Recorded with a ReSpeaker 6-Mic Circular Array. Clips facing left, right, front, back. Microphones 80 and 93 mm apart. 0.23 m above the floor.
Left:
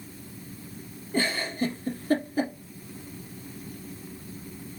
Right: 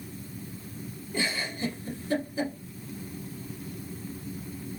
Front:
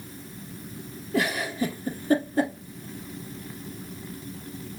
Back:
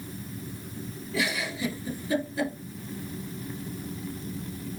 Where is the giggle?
45° left, 2.5 m.